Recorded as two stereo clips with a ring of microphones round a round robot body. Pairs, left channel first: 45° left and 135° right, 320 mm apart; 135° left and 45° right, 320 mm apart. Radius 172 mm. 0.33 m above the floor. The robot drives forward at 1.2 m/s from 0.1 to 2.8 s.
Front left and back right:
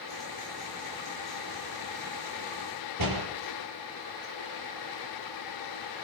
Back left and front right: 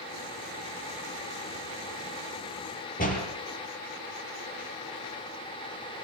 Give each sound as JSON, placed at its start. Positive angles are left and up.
{"t": 3.0, "sound": "a door slam", "azimuth_deg": -160, "distance_m": 6.0}